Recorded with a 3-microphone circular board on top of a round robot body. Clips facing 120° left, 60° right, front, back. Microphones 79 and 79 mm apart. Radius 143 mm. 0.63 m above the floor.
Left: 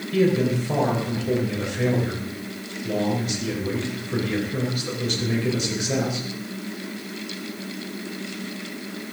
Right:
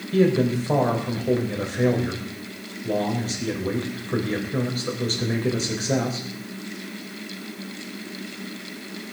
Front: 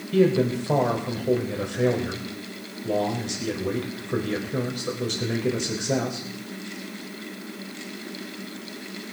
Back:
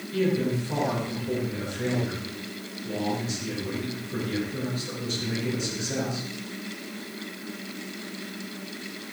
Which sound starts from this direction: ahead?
A man speaking, at 0.1 s.